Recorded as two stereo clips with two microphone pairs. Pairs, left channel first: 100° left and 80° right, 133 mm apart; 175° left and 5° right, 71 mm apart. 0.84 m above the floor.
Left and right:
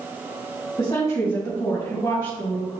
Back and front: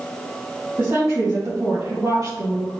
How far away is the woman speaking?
About 4.5 m.